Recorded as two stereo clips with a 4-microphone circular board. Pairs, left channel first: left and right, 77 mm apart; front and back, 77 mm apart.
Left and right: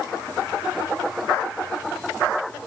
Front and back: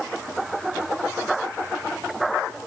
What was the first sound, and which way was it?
Only background noise.